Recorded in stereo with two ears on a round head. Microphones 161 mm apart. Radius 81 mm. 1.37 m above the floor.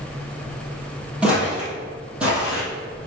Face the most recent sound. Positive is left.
turn(degrees=-5)  # may be behind; listen again after turning